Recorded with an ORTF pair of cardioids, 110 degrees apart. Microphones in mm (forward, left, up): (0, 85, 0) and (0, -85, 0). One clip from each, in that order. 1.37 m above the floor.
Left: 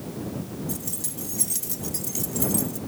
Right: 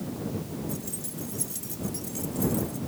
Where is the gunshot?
I don't hear a gunshot.